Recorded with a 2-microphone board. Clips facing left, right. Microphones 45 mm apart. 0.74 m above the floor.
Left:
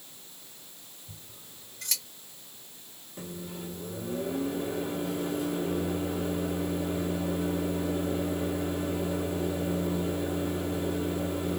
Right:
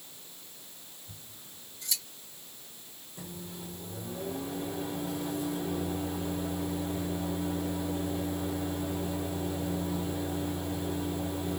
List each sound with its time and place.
1.1 s scissors: 65° left (ahead or behind), 1.6 m
3.2 s a microwave: 35° left (ahead or behind), 1.7 m